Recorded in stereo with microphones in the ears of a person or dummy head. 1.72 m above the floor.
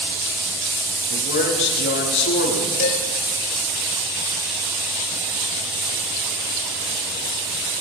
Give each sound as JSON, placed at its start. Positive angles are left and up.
{"t": 1.1, "sound": "a man speaking", "side_deg": 65, "distance_m": 6.0}
{"t": 2.8, "sound": "dishes clattering", "side_deg": 60, "distance_m": 2.5}